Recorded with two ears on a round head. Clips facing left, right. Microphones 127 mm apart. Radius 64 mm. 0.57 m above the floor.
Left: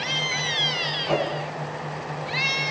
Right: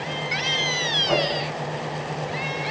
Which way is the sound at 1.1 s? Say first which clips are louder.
Right 1 dB; 5° left (ahead or behind).